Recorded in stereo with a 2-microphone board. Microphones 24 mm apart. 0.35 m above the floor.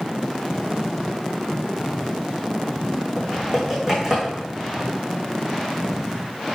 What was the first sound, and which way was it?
Typing on a keyboard, 25° right (ahead or behind).